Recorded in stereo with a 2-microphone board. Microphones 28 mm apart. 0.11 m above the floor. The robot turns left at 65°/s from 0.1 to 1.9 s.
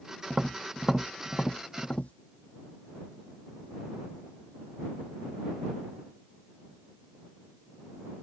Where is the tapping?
40° right (ahead or behind); by 2.1 s 60° left (ahead or behind).